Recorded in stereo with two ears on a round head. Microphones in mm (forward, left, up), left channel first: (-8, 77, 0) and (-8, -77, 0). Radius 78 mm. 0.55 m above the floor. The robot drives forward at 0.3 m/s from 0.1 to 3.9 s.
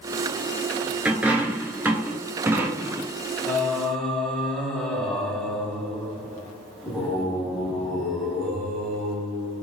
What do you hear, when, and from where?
1.1 s a dropped coin: 10° right (ahead or behind), 0.9 m; by 3.1 s 15° right (ahead or behind), 0.5 m
3.5 s singing: 5° left (ahead or behind), 0.8 m